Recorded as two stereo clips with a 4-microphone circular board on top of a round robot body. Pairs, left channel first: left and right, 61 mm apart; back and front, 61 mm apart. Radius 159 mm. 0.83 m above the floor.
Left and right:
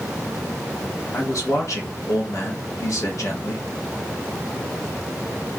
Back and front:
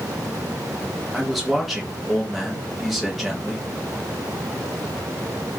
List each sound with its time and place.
1.1 s a man speaking: 90° left, 1.0 m